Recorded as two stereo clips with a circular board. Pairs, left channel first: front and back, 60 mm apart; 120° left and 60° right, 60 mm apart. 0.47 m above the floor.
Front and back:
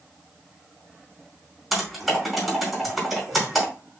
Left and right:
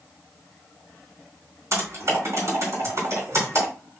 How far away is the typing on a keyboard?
About 3.5 m.